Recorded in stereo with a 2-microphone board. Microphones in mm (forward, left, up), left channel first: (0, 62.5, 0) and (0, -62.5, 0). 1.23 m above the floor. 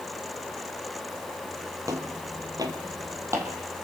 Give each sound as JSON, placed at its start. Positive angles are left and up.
{"t": 1.9, "sound": "footsteps", "side_deg": -25, "distance_m": 1.6}